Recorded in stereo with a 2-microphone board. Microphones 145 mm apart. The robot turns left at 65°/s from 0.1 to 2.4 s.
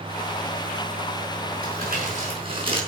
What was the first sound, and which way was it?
Crumpling, 90° right.